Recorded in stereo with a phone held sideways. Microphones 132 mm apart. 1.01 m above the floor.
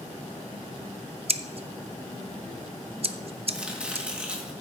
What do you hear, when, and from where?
1.3 s scissors: 50° right (ahead or behind), 0.6 m
3.5 s chopping: 10° right (ahead or behind), 1.8 m